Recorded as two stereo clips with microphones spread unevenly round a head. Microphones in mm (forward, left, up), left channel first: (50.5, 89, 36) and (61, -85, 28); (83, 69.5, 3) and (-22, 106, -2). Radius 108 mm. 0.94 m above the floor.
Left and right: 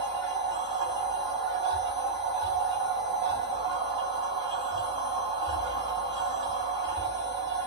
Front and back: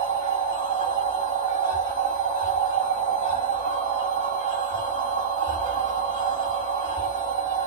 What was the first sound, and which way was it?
A machine running, 155° right.